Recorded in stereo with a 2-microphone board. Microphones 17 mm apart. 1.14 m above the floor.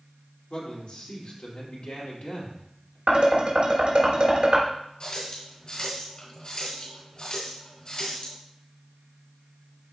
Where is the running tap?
55° left (ahead or behind), 2.5 m.